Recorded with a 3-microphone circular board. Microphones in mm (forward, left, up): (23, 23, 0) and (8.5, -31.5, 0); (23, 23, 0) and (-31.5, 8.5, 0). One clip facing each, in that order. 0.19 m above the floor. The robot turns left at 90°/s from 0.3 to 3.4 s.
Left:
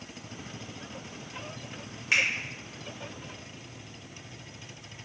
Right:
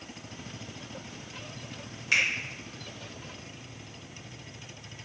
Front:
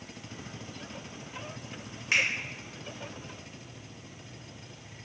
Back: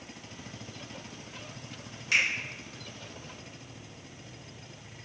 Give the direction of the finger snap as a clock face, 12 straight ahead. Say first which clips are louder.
Even, even; 11 o'clock.